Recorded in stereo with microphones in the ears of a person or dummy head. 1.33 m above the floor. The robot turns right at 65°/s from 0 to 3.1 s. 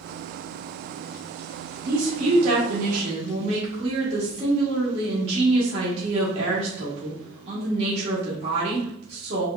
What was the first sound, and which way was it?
A woman speaking, 120° right.